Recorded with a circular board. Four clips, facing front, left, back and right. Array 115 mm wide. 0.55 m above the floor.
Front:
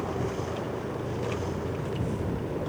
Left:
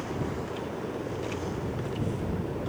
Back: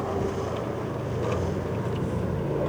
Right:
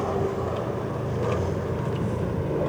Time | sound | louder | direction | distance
0.0 | an aircraft | right 7 dB, back 3 dB | 110° right | ?